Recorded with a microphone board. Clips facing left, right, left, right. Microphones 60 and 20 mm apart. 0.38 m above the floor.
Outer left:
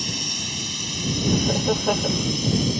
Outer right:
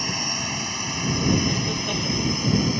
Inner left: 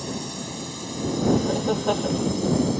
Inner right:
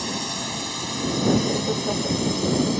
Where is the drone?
35° right (ahead or behind).